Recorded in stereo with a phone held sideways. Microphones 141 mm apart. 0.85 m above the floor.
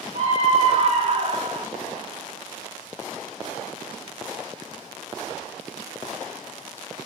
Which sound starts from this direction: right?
A scream, at 0.1 s.